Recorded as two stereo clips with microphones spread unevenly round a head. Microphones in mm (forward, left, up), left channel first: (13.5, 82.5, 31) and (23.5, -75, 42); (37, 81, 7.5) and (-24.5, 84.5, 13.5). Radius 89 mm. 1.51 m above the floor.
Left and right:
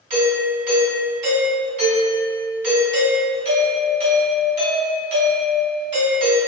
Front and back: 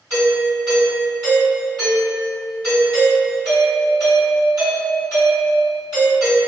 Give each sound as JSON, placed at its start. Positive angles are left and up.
{"t": 0.1, "sound": "a doorbell", "azimuth_deg": -135, "distance_m": 1.8}